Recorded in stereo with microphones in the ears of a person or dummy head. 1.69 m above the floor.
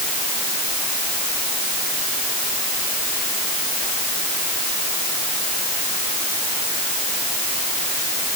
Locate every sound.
Only background noise.